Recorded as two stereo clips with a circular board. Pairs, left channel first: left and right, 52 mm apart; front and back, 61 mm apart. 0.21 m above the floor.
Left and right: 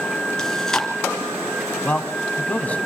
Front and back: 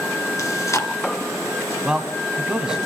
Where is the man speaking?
115° left, 1.9 m.